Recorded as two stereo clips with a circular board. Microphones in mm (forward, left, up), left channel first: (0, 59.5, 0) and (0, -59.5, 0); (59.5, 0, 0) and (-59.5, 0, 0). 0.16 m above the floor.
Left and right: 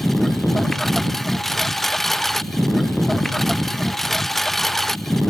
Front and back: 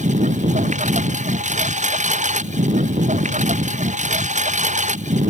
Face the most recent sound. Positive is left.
turn(degrees=180)